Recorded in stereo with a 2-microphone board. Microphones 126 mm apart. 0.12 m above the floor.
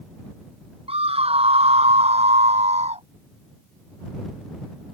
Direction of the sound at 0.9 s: 50° right (ahead or behind).